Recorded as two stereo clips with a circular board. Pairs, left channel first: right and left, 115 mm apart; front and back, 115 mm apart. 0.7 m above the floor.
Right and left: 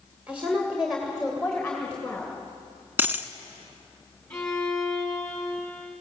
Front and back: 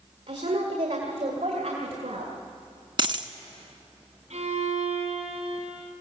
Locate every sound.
0.3 s a woman speaking: 170° left, 2.5 m; by 2.3 s 165° right, 2.5 m
3.0 s a dropped coin: 155° left, 0.8 m
4.3 s a violin: 175° right, 3.5 m